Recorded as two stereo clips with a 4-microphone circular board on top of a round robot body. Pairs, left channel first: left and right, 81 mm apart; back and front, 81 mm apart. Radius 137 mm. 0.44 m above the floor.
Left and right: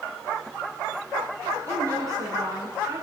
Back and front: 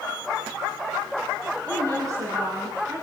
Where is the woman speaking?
45° right, 8 m.